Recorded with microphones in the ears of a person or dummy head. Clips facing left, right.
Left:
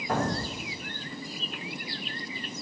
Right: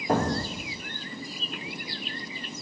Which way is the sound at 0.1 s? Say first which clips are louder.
Right 3 dB; 25° right (ahead or behind).